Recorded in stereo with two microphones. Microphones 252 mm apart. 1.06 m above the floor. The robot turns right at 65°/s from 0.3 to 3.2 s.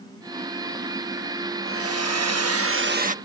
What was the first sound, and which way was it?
A hair dryer, 125° right.